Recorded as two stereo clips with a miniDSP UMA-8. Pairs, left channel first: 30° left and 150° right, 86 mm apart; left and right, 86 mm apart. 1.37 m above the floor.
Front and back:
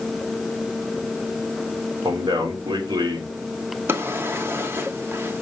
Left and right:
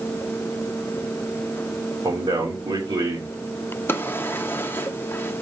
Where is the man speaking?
115° right, 2.5 m.